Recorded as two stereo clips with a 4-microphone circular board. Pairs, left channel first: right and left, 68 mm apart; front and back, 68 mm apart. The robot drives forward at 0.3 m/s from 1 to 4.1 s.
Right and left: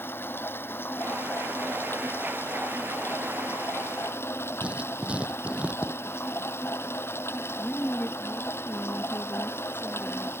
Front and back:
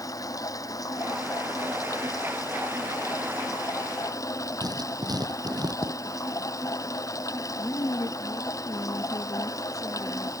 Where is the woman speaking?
30° right.